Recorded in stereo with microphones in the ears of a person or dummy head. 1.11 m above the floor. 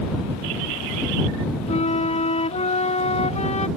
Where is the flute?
35° left (ahead or behind).